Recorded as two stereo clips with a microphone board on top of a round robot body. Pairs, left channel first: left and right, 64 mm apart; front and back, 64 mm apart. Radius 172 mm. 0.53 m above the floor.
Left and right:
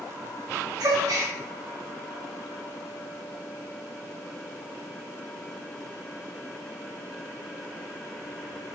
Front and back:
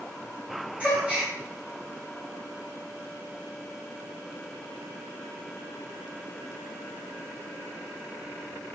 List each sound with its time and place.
0.8 s a gasp: 110° right, 1.8 m